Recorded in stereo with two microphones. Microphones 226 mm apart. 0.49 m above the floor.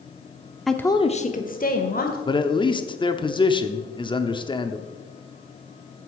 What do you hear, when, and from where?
0.7 s a woman speaking: centre (ahead or behind), 0.8 m; by 2.2 s 40° left (ahead or behind), 2 m
2.3 s a man speaking: 20° left (ahead or behind), 0.7 m